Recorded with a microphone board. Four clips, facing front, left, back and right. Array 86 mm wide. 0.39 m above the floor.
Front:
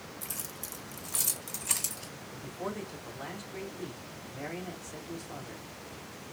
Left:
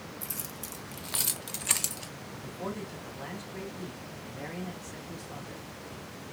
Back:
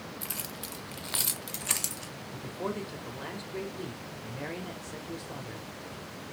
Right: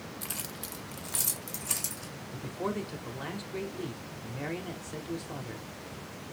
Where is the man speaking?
125° right, 1.3 m.